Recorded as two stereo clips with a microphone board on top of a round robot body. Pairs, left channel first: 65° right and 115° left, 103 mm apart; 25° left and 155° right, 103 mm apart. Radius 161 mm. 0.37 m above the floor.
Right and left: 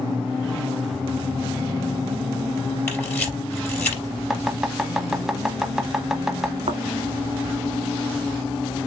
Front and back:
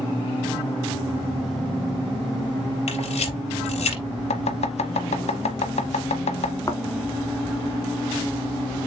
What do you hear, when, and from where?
2.9 s a camera shutter: 5° left, 3.5 m
4.3 s chopping: 25° left, 1.0 m
6.7 s a thud: 85° left, 1.0 m